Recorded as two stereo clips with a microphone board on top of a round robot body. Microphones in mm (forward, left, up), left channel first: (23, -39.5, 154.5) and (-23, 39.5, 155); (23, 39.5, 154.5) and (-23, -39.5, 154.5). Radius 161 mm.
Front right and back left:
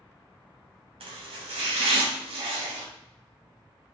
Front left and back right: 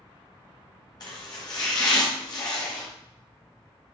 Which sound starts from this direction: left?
Chopping, at 1.0 s.